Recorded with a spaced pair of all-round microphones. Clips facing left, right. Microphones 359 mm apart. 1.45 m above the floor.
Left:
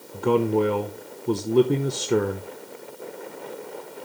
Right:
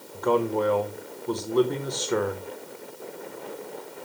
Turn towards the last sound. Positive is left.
turn(degrees=40)  # may be behind; listen again after turning